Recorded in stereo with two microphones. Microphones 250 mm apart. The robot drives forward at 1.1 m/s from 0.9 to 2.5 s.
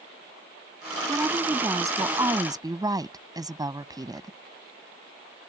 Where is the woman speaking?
10° right (ahead or behind); by 4.4 s 15° right (ahead or behind).